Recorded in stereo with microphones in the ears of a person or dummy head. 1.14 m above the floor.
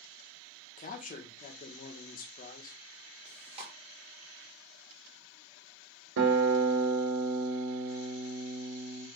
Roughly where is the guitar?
Right.